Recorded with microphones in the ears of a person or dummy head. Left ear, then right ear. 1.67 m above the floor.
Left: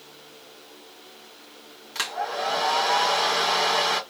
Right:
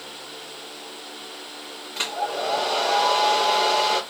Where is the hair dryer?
60° left (ahead or behind), 2 m.